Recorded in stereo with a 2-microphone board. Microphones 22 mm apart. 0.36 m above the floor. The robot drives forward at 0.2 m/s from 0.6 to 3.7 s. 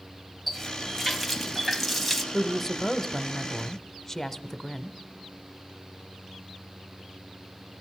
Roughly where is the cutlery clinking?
I don't hear cutlery clinking.